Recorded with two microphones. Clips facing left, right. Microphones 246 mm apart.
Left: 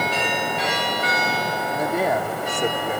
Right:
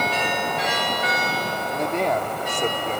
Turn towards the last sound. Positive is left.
turn(degrees=10)  # may be behind; listen again after turning